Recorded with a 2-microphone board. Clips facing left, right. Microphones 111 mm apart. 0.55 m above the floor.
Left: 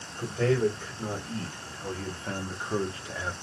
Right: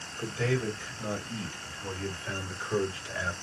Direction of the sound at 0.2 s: 50° left (ahead or behind).